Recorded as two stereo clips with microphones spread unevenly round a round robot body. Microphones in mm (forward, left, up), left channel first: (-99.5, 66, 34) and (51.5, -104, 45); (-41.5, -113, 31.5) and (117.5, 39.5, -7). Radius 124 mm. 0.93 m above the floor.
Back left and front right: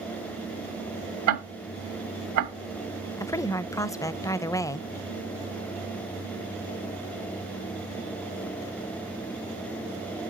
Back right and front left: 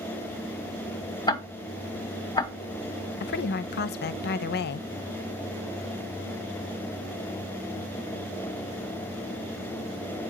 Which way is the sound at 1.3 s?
65° right.